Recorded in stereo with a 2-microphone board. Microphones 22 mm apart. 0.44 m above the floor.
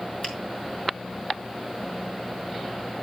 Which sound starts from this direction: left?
A finger snap, at 0.2 s.